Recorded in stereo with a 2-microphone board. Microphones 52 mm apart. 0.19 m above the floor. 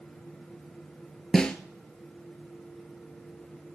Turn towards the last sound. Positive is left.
turn(degrees=15)  # may be behind; listen again after turning